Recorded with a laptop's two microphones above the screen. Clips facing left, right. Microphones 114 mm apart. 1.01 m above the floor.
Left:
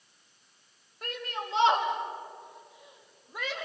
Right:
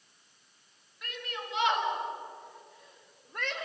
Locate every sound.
1.0 s a shout: 45° left (ahead or behind), 4.5 m; by 3.7 s centre (ahead or behind), 3 m